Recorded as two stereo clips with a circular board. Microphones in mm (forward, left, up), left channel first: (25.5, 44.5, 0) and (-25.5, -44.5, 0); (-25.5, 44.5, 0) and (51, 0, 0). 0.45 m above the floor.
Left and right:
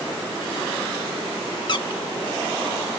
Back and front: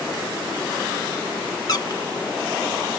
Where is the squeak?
100° left, 0.6 m.